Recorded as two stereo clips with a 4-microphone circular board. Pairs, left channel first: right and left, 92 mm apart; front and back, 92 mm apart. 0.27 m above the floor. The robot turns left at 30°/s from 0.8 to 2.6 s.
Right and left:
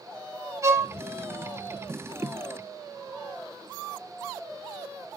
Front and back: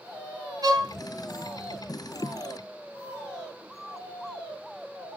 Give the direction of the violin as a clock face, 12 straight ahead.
7 o'clock.